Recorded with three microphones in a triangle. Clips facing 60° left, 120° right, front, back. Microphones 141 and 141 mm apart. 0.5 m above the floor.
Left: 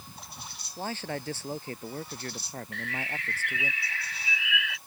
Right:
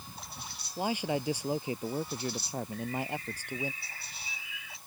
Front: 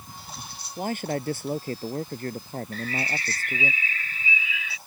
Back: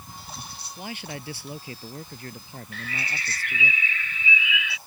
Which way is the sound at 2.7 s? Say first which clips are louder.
Right 2 dB, front 4 dB; 50° left.